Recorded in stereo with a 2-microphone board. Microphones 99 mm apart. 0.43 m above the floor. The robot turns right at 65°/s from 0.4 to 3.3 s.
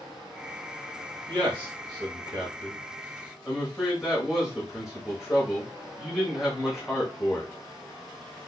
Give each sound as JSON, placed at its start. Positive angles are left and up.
{"t": 1.3, "sound": "a man speaking", "azimuth_deg": -135, "distance_m": 1.4}